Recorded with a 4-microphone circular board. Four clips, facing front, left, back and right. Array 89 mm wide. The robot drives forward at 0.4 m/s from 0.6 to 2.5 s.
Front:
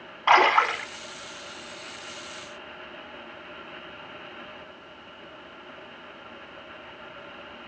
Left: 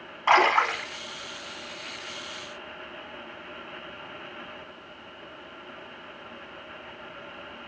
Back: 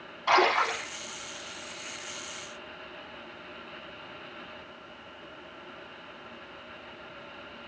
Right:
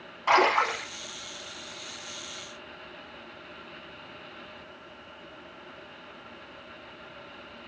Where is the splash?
35° left, 1.2 m.